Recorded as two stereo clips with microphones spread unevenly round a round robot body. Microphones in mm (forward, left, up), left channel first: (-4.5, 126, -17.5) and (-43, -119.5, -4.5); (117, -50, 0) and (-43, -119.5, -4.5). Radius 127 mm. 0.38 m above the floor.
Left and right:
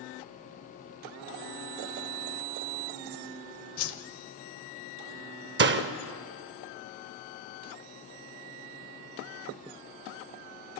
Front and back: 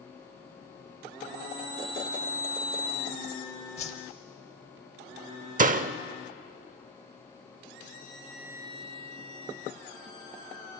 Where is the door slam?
135° right, 0.7 m.